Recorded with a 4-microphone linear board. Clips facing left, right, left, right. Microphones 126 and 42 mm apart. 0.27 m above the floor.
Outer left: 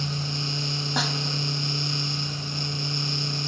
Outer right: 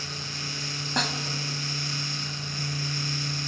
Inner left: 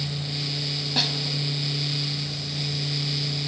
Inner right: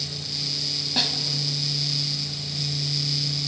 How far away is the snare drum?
About 1.5 m.